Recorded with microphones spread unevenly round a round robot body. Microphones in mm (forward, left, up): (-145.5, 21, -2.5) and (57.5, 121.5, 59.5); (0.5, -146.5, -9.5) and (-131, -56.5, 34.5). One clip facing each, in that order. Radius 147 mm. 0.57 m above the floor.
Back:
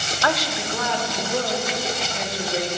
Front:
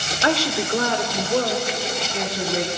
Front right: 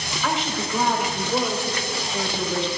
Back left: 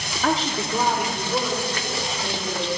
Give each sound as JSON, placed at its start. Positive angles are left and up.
{"t": 0.2, "sound": "a woman speaking", "azimuth_deg": 100, "distance_m": 1.2}